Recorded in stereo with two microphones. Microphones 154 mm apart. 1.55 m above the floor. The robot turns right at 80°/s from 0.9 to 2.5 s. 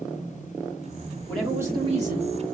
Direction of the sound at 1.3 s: 170° left.